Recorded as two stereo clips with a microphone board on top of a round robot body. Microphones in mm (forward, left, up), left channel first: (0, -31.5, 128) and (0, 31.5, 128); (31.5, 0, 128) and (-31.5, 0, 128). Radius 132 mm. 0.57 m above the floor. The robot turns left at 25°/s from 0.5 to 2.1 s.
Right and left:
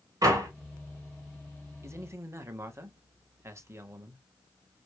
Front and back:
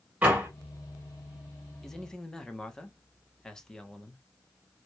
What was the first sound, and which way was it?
A door slam, 115° left.